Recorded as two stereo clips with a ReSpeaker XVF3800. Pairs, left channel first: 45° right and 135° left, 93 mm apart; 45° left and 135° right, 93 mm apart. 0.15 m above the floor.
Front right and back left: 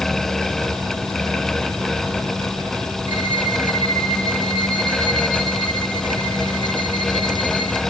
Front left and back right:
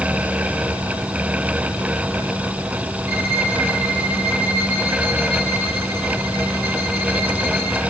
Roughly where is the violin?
Right.